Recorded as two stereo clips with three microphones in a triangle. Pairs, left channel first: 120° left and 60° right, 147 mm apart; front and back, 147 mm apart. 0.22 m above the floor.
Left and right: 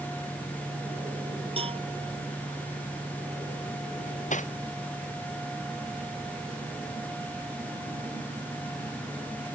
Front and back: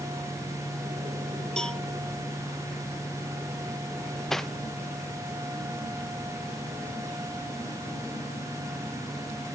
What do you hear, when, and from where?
1.6 s a cowbell: 85° right
4.0 s cutlery clinking: 85° left